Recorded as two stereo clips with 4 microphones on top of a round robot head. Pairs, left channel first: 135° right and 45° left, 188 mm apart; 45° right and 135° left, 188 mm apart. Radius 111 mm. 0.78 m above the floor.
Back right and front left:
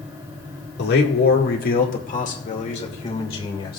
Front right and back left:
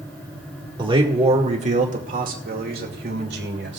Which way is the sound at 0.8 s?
160° right.